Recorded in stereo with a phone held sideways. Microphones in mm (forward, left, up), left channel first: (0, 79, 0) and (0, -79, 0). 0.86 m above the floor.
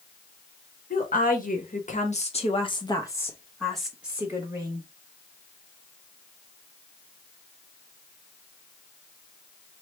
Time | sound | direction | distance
0.9 | a woman speaking | 65° left (ahead or behind) | 1.4 m